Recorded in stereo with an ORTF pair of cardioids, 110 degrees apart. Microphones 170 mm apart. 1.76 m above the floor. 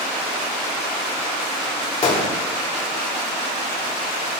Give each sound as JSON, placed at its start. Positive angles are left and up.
{"t": 2.0, "sound": "a gunshot", "azimuth_deg": 40, "distance_m": 5.5}